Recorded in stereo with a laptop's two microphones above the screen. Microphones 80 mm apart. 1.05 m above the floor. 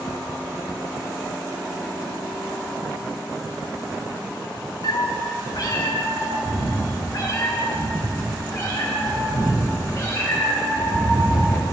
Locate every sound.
4.8 s a cat meowing: 65° left (ahead or behind), 0.6 m; by 11.6 s 45° left (ahead or behind), 4.5 m